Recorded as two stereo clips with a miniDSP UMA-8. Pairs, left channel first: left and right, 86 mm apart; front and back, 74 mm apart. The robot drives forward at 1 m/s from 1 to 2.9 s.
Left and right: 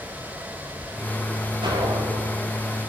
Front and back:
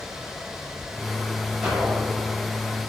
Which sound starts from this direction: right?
An explosion, at 1.6 s.